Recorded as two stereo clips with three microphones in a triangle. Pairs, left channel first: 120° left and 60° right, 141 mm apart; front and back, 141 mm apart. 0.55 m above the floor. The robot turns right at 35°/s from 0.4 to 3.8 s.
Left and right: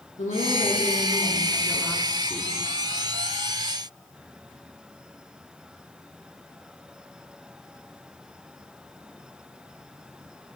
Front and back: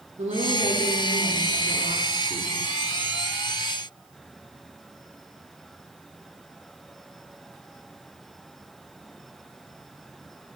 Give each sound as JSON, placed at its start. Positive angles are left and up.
{"t": 0.2, "sound": "a woman speaking", "azimuth_deg": 140, "distance_m": 6.5}